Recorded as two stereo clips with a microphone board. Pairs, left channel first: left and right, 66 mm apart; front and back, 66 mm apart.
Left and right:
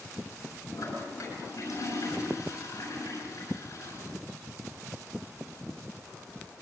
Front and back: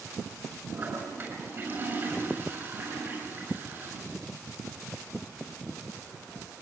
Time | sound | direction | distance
0.7 | a toilet flushing | 130° left | 7.5 m